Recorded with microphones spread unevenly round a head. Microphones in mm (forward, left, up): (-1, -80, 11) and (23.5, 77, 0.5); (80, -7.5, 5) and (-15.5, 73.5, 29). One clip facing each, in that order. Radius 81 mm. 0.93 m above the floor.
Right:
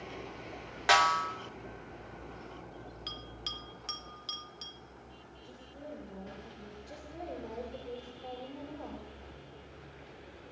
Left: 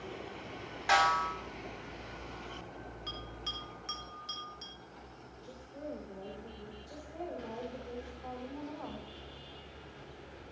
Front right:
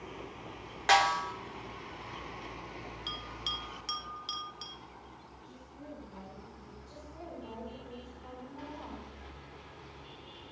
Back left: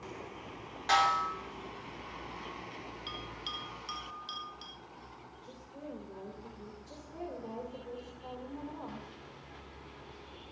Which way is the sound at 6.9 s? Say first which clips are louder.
Left 1 dB, back left 3 dB; 170° right.